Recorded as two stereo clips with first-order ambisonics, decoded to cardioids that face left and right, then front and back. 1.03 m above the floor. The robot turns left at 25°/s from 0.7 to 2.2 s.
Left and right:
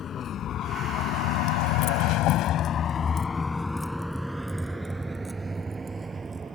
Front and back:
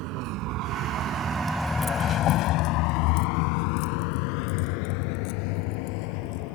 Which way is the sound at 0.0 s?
155° left.